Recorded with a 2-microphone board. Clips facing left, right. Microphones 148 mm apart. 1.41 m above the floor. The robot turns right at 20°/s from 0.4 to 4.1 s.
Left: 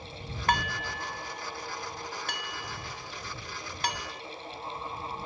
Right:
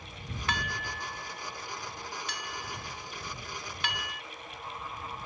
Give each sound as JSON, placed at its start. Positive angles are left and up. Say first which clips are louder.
{"t": 0.5, "sound": "dishes clattering", "louder": "left 7 dB", "side_deg": 50}